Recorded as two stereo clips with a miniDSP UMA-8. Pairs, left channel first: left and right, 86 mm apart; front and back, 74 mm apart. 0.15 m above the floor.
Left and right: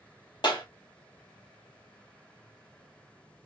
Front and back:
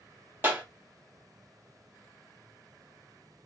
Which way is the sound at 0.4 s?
120° left.